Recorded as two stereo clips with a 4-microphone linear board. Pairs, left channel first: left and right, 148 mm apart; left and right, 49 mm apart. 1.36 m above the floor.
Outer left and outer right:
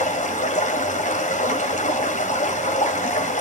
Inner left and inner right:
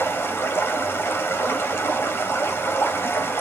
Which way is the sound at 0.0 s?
55° left (ahead or behind).